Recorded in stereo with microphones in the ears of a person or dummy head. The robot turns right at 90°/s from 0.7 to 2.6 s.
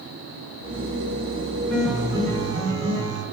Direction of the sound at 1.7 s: 165° left.